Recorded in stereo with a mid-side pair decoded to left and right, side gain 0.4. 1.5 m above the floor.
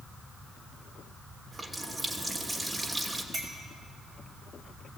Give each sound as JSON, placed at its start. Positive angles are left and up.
{"t": 1.5, "sound": "a running tap", "azimuth_deg": -20, "distance_m": 3.0}
{"t": 3.3, "sound": "a clink", "azimuth_deg": -35, "distance_m": 6.0}